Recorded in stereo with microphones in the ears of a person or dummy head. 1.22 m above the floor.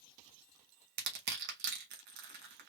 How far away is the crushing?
About 1.1 m.